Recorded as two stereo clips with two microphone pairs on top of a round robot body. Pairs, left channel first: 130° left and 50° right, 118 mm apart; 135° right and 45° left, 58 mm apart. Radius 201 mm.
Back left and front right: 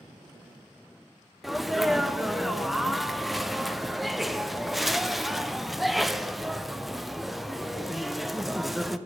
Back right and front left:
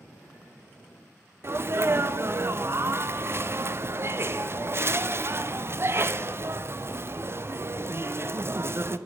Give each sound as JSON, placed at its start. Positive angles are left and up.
{"t": 1.4, "sound": "a sneeze", "azimuth_deg": 35, "distance_m": 0.6}